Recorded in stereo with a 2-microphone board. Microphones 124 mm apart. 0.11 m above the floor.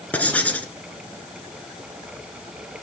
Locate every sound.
0.1 s writing: 10° left (ahead or behind), 1.1 m